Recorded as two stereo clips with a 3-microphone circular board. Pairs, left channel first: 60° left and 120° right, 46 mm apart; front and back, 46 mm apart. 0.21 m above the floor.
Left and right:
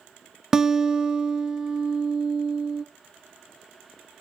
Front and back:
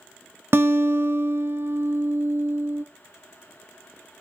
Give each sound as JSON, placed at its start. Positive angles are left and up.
{"t": 0.5, "sound": "a guitar", "azimuth_deg": 165, "distance_m": 0.8}